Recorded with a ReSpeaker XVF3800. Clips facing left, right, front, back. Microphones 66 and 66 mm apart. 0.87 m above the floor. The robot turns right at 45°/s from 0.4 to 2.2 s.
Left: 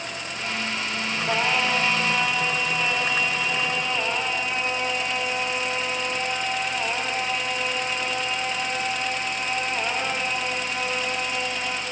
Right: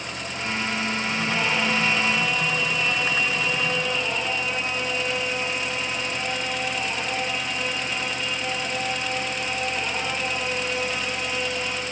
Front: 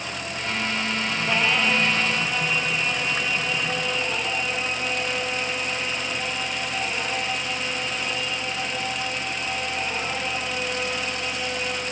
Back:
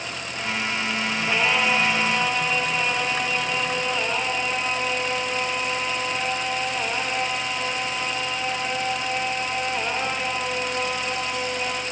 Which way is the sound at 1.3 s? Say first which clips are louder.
Left 2 dB, back 1 dB; 95° left.